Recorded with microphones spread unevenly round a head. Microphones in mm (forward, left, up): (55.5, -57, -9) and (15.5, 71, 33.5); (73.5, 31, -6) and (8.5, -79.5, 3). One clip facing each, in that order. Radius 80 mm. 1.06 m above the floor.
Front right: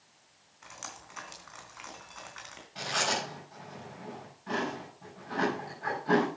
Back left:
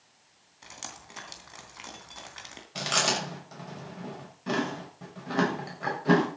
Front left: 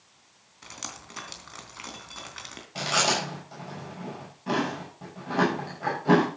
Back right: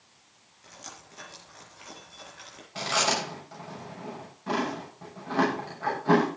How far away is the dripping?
About 3 m.